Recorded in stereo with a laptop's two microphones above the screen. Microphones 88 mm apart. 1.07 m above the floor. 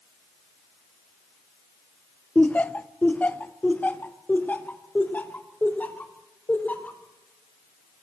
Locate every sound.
2.4 s laughter: 15° left (ahead or behind), 0.9 m; by 7.0 s 20° left (ahead or behind), 3.5 m